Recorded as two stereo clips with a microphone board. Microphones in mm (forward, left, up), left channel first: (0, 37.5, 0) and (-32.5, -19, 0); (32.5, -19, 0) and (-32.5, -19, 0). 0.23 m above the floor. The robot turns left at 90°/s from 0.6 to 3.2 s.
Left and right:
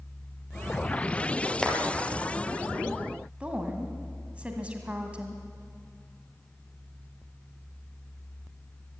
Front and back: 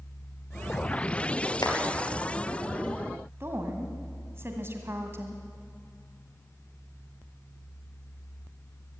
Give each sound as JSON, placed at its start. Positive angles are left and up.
{"t": 1.6, "sound": "a clap", "azimuth_deg": -20, "distance_m": 3.5}
{"t": 3.4, "sound": "a woman speaking", "azimuth_deg": 180, "distance_m": 1.9}